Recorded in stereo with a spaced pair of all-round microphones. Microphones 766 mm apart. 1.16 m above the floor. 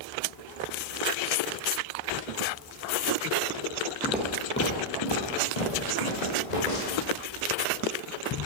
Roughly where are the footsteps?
Centre.